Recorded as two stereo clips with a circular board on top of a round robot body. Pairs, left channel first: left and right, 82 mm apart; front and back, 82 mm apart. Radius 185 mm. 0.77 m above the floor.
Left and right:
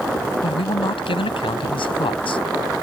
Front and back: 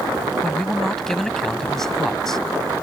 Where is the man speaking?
85° left.